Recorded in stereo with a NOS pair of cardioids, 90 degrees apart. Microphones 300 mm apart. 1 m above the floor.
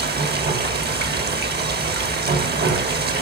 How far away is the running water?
About 1.5 m.